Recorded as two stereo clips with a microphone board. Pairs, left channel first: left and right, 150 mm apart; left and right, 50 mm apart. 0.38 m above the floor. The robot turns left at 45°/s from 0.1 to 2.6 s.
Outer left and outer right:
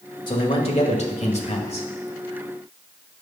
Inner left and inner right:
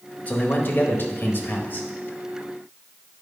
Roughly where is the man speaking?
Behind left.